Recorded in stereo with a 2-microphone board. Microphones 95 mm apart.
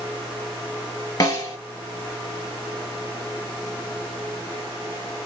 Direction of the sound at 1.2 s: 40° left (ahead or behind).